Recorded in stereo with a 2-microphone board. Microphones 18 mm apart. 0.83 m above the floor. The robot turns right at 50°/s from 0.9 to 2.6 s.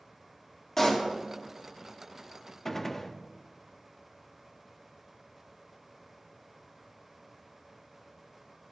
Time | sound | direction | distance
0.8 | a pop | 25° left (ahead or behind) | 1.9 m
2.6 | a gunshot | 20° left (ahead or behind) | 0.5 m